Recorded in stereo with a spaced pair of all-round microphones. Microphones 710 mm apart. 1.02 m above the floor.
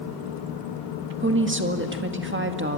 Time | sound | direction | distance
1.2 | a woman speaking | 15° right (ahead or behind) | 1.8 m